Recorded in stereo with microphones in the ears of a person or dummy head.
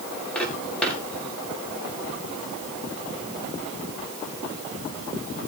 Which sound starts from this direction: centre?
Footsteps, at 0.3 s.